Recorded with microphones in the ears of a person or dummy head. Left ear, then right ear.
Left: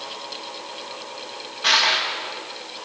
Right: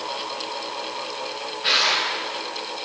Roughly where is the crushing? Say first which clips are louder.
Left 2 dB; left.